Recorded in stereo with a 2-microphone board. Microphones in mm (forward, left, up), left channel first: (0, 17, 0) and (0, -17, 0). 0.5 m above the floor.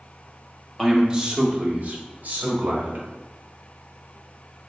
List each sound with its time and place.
0.8 s a man speaking: 5° right (ahead or behind), 0.7 m; by 3.0 s 65° right (ahead or behind), 1.5 m